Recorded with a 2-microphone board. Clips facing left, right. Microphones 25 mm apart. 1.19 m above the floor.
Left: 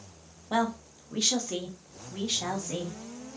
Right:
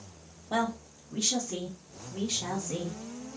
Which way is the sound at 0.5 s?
15° left (ahead or behind).